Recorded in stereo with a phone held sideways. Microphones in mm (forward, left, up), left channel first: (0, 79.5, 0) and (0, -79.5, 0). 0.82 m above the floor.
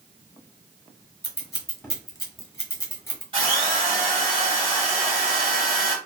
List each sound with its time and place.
1.2 s scissors: 15° left (ahead or behind), 0.8 m
3.3 s a drill: 35° right (ahead or behind), 1.4 m